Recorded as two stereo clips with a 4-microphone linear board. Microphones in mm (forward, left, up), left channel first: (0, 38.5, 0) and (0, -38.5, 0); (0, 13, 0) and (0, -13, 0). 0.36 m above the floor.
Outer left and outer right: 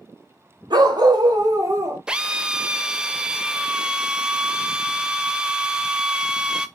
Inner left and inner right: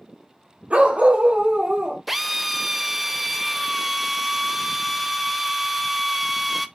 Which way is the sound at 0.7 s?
70° right (ahead or behind).